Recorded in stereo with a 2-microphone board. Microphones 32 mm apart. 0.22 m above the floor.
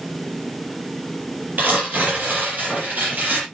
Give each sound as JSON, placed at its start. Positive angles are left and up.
{"t": 1.6, "sound": "tearing paper", "side_deg": -65, "distance_m": 6.5}